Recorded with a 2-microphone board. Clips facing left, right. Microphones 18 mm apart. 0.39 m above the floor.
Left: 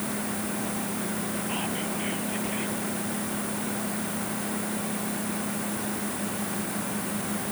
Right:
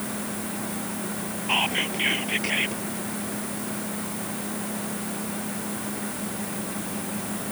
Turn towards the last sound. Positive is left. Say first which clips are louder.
# right 6 dB
turn(degrees=-55)  # may be behind; listen again after turning